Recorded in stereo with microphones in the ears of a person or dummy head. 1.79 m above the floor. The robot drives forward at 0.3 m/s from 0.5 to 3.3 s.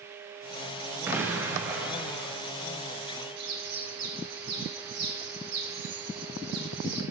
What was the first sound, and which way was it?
An explosion, 10° right (ahead or behind).